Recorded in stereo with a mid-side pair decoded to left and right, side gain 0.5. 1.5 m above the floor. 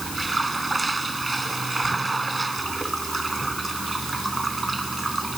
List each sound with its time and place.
0.0 s running water: 15° right